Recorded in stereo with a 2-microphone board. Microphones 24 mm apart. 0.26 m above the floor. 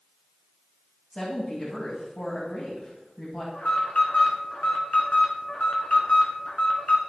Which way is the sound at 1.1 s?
45° left (ahead or behind).